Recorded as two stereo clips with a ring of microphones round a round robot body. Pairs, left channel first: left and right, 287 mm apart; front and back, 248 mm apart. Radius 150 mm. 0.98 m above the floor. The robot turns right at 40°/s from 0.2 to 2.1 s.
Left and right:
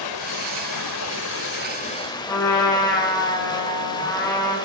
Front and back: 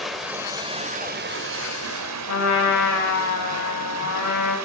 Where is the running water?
90° left, 2.5 m; by 4.7 s 165° left, 2.5 m.